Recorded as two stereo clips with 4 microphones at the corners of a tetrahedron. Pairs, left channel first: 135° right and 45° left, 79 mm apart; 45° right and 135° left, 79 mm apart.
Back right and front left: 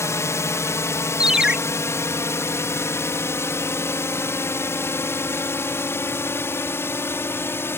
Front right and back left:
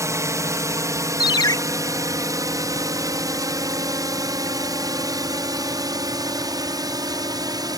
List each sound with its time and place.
0.0 s a drone: 175° left; by 7.8 s 165° left
1.2 s a ringtone: 35° right